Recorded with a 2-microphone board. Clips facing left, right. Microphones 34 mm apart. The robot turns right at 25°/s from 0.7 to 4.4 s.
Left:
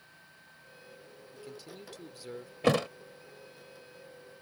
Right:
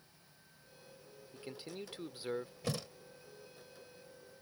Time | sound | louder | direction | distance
1.3 | a man speaking | right 1 dB | 30° right (ahead or behind) | ?
2.6 | a thud | left 17 dB | 65° left (ahead or behind) | ?